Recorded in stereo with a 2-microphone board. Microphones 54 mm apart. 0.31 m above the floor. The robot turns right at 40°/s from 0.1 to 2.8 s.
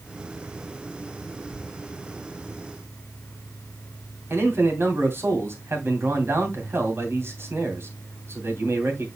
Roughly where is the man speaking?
Right.